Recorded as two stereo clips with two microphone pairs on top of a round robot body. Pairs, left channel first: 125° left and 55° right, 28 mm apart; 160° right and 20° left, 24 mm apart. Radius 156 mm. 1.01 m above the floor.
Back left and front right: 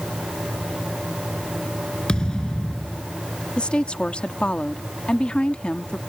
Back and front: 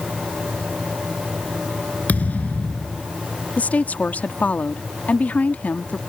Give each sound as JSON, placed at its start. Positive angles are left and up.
{"t": 2.1, "sound": "a thud", "azimuth_deg": -175}
{"t": 3.6, "sound": "a woman speaking", "azimuth_deg": 180}